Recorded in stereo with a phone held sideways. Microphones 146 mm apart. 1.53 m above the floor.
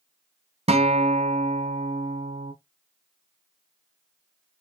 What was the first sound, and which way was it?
A guitar, 45° right (ahead or behind).